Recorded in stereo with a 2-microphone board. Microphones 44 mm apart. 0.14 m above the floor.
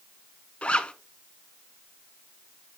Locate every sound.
0.6 s a zipper: 30° left (ahead or behind), 0.5 m